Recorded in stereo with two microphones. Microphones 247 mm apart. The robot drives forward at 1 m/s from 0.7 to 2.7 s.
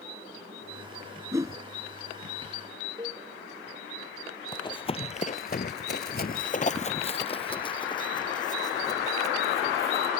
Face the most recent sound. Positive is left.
turn(degrees=15)  # may be behind; listen again after turning